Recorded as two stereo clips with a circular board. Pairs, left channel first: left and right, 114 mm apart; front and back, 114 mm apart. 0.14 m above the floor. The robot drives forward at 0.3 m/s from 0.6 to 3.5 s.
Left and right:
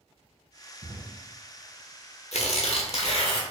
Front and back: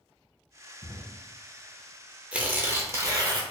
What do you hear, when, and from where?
0.8 s a drawer: 45° right, 1.7 m; by 1.0 s 50° right, 1.7 m
2.3 s tearing paper: 100° left, 0.6 m; by 3.4 s 130° left, 0.7 m